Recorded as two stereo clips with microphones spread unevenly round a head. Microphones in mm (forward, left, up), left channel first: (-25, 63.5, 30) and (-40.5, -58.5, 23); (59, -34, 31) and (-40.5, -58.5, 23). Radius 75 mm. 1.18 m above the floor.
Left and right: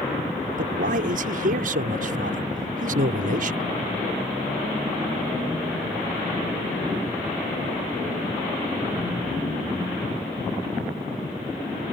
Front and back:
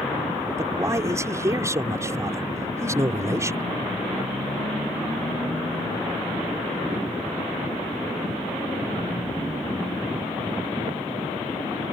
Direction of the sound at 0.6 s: 105° right.